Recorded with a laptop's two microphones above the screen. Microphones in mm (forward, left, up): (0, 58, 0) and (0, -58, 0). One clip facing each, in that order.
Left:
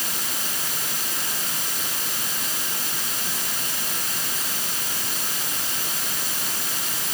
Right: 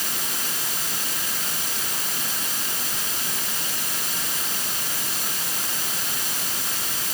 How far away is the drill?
I don't hear a drill.